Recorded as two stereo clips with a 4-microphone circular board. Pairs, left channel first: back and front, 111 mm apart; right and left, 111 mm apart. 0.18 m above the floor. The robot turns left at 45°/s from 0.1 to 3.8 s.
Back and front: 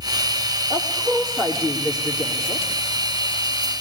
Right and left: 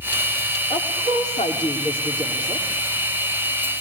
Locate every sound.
0.7 s a woman speaking: 70° right, 7 m; by 2.7 s 155° right, 7 m